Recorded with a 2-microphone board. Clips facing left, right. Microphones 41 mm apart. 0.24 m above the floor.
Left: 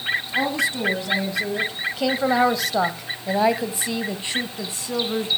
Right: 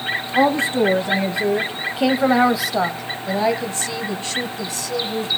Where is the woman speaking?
35° right (ahead or behind), 1.7 m; by 5.3 s 25° left (ahead or behind), 2 m.